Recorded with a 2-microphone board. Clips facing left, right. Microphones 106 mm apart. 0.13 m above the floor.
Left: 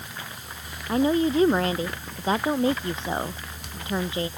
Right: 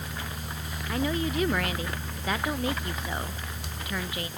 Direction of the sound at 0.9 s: 30° left (ahead or behind).